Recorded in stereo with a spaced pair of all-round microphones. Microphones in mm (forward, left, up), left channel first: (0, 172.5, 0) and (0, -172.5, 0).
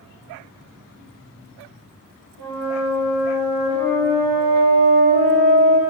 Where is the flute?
90° left, 4 m.